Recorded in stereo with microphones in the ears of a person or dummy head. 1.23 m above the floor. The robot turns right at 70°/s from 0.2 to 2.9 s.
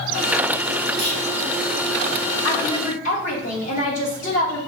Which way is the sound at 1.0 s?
65° right (ahead or behind).